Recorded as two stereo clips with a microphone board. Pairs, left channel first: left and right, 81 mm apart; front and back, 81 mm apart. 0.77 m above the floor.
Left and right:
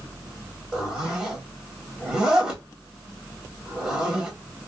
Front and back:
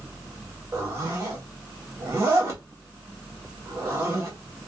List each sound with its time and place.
0.7 s a zipper: 160° right, 1.1 m